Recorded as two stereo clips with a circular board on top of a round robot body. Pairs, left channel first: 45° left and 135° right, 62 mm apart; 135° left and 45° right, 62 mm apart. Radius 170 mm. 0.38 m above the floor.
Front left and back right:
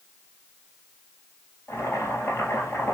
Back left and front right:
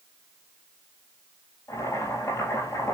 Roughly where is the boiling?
Left.